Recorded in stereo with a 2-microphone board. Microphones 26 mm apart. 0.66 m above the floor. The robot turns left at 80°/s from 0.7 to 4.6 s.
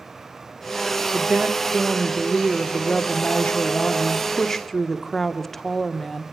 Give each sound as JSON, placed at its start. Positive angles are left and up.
{"t": 1.1, "sound": "a woman speaking", "azimuth_deg": -75, "distance_m": 1.8}